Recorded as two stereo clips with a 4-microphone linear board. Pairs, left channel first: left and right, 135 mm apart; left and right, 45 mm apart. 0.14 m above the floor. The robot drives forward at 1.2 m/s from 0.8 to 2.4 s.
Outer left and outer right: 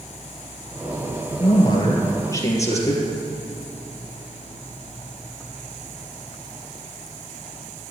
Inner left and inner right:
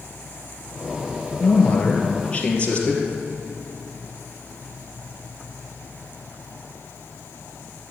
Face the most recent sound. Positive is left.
turn(degrees=25)  # may be behind; listen again after turning